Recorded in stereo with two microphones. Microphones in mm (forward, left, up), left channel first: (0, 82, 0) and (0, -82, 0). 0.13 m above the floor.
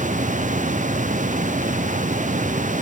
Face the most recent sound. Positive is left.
No sound to turn to.